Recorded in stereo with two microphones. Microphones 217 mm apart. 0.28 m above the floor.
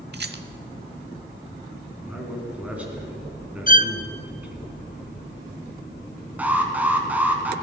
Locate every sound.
0.1 s a rattle: 55° right (ahead or behind), 0.7 m
2.0 s a man speaking: 5° right (ahead or behind), 3.5 m
3.7 s a violin: 40° left (ahead or behind), 0.5 m
6.4 s an alarm: 10° right (ahead or behind), 1.9 m